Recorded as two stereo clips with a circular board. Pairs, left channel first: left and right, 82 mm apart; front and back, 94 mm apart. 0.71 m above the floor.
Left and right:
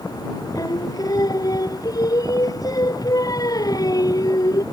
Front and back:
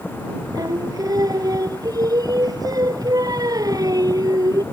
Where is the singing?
130° left.